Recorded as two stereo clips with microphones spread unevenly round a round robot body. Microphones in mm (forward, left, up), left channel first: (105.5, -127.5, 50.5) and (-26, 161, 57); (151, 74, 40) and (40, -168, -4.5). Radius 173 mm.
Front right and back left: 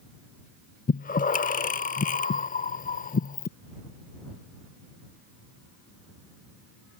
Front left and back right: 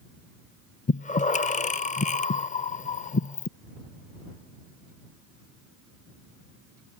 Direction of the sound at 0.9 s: 5° right.